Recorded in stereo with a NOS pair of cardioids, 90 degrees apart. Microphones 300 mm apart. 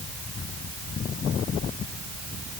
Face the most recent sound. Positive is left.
No sound to turn to.